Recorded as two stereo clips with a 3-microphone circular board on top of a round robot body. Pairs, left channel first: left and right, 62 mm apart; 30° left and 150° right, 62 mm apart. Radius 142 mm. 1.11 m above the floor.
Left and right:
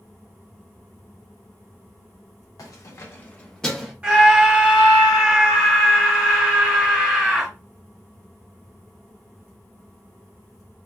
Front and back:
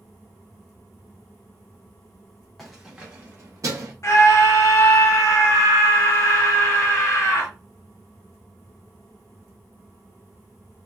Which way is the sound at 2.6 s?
115° left.